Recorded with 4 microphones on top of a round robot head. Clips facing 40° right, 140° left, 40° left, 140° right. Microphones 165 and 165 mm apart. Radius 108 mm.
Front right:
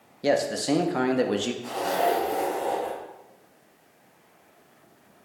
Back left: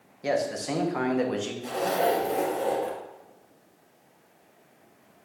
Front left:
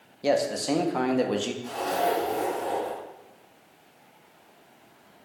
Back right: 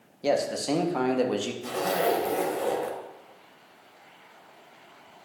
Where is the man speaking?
50° right, 0.9 m.